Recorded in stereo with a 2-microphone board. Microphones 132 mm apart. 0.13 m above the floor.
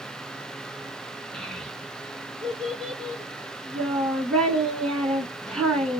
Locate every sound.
1.3 s a child speaking: 5° left (ahead or behind), 1.1 m